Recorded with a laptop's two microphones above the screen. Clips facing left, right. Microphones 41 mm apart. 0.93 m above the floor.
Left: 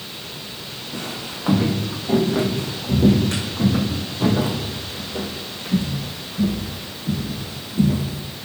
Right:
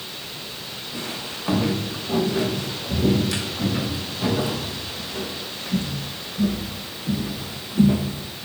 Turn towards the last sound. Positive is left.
turn(degrees=-30)  # may be behind; listen again after turning